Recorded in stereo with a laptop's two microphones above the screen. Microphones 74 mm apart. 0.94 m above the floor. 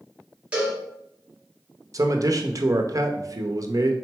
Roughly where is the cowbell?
Centre.